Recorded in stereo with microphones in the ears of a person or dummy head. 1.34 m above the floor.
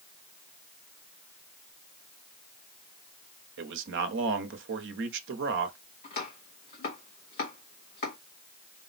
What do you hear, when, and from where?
3.6 s a man speaking: 65° right (ahead or behind), 1.0 m
6.0 s chopping: 45° left (ahead or behind), 1.3 m